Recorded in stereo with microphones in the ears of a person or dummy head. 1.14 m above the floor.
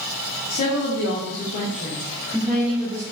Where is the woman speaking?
75° left (ahead or behind), 1.4 m; by 3.0 s 20° right (ahead or behind), 1.4 m.